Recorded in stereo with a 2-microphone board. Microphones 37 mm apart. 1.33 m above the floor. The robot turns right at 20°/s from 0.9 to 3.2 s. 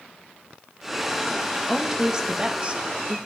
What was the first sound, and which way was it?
A woman speaking, 15° right (ahead or behind).